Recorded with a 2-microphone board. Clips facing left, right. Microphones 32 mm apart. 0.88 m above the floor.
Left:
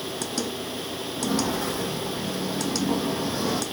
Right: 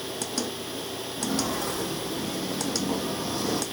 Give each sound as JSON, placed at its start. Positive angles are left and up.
{"t": 1.2, "sound": "footsteps", "side_deg": 20, "distance_m": 4.0}